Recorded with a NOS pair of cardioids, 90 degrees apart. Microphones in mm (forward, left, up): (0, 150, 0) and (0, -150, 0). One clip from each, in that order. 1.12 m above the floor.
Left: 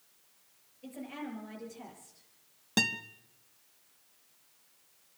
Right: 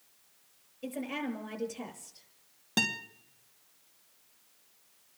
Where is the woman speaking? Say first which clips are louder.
Right 6 dB; 65° right, 6.5 m.